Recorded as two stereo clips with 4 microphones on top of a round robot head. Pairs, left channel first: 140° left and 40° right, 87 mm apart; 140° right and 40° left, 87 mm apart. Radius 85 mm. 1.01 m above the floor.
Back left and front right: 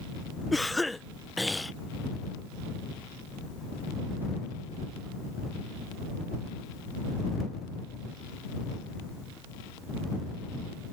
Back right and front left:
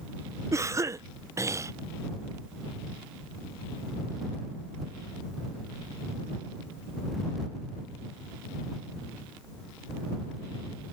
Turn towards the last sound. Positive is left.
turn(degrees=55)